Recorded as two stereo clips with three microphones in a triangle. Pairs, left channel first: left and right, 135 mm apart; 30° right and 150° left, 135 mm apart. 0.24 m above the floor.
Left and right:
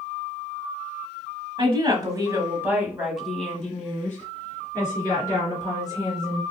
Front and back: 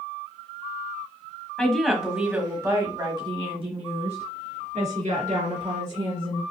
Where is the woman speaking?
110° right, 1.3 m; by 6.4 s 145° left, 2.5 m.